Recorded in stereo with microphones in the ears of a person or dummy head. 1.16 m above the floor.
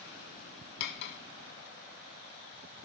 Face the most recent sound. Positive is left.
turn(degrees=60)  # may be behind; listen again after turning